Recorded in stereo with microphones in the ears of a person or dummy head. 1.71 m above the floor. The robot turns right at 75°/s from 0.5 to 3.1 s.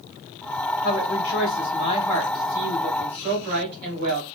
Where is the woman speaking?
65° left, 1.2 m; by 4.2 s 125° right, 1.2 m.